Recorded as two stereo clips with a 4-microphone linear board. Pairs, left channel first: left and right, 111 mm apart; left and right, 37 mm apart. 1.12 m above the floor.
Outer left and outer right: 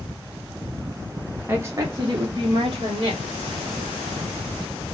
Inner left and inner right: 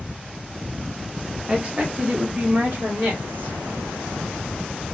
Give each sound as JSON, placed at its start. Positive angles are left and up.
{"t": 1.5, "sound": "a woman speaking", "side_deg": -20, "distance_m": 0.6}